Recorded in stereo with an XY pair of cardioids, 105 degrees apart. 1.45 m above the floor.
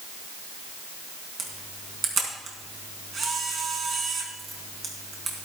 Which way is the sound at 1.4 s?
45° right.